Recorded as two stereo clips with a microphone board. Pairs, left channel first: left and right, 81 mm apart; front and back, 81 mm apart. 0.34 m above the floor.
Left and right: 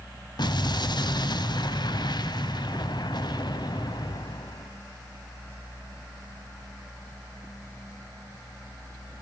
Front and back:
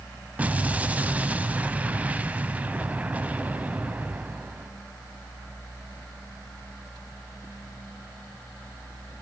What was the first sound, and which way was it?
An explosion, 110° left.